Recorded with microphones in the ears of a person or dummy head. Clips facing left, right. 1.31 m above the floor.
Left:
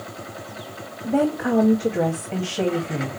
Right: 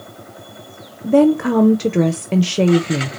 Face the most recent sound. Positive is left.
turn(degrees=-50)  # may be behind; listen again after turning